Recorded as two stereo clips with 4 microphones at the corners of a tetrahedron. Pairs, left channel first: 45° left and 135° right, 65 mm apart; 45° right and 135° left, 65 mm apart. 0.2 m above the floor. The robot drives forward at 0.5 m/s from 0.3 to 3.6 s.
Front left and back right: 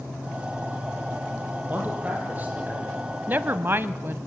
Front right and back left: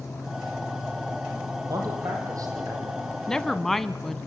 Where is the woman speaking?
115° right, 1.1 m; by 4.2 s 130° right, 1.1 m.